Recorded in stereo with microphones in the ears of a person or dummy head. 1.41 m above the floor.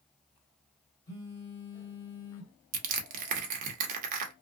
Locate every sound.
1.1 s a phone buzzing: 30° left (ahead or behind), 1.7 m
2.7 s crushing: 40° right (ahead or behind), 0.6 m